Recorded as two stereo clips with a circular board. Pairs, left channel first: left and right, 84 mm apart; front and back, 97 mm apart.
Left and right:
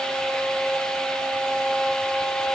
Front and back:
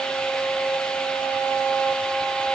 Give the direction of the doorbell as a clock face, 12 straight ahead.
No doorbell in this recording.